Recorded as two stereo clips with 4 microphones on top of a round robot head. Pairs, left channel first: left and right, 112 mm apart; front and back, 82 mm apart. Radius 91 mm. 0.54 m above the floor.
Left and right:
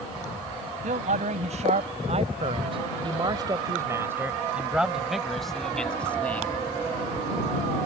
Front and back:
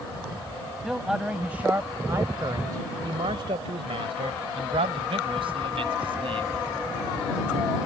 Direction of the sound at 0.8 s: 95° right.